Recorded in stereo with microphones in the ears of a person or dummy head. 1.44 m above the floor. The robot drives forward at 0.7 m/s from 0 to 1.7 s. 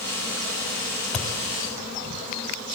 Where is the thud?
10° left (ahead or behind), 2 m.